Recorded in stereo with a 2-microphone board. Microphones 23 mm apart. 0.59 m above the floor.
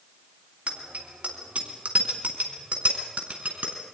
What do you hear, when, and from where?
0.7 s a bicycle bell: 70° right (ahead or behind), 3.5 m; by 3.8 s 75° right (ahead or behind), 5 m